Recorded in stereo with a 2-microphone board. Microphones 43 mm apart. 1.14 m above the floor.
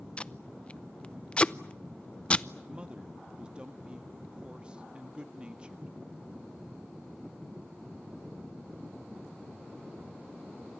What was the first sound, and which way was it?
Tape being pulled, 25° left (ahead or behind).